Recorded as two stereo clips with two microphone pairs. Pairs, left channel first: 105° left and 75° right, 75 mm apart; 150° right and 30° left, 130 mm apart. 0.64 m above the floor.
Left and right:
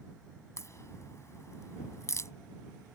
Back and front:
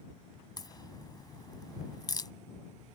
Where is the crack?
150° left.